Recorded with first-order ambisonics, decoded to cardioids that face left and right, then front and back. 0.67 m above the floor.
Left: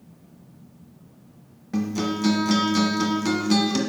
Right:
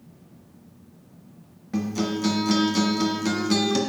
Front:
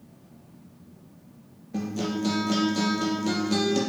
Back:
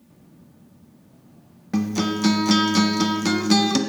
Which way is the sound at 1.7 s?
175° left.